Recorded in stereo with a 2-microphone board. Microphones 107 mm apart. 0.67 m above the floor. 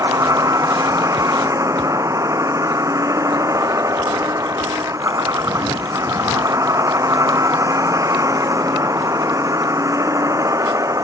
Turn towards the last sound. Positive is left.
turn(degrees=-30)  # may be behind; listen again after turning